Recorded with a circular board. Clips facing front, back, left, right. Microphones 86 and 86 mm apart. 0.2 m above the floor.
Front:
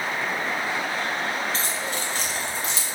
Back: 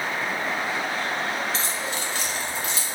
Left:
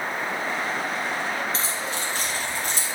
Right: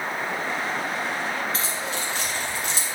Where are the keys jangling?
35° left, 2.0 m; by 3.0 s 55° left, 1.9 m.